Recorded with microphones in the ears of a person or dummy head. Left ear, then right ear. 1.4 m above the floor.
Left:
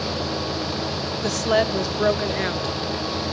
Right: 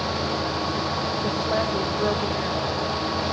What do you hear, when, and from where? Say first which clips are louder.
1.2 s a woman speaking: left 7 dB; 85° left, 0.9 m